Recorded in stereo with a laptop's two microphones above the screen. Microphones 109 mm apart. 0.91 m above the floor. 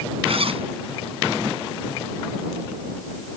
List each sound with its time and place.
0.3 s a zipper: 60° right (ahead or behind)